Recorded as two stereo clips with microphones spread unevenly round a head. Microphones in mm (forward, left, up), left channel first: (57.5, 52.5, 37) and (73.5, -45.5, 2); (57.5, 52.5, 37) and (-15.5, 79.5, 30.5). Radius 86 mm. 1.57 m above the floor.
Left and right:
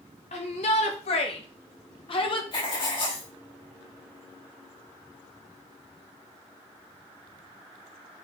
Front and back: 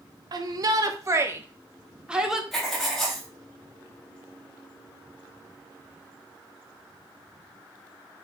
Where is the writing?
65° left, 3 m.